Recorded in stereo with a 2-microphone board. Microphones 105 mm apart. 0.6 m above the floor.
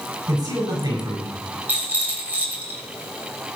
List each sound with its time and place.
0.3 s a man speaking: 35° right (ahead or behind), 7 m; by 1.4 s 40° right (ahead or behind), 6 m
1.7 s a rattle: 15° right (ahead or behind), 3 m